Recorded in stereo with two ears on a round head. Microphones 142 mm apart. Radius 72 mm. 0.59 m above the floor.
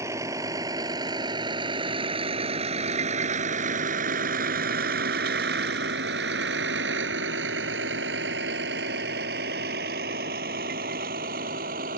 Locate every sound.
0.0 s a vehicle: 20° right (ahead or behind); by 12.0 s 55° right (ahead or behind)